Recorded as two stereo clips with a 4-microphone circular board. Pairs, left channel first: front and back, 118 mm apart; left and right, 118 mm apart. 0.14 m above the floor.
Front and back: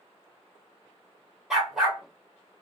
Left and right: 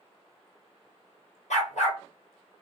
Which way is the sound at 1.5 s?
95° left.